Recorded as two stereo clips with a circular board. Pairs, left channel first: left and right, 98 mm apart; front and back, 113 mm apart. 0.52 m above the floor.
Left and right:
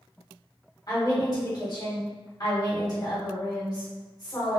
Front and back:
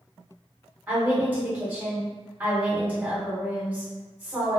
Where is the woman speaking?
110° left, 1.5 m.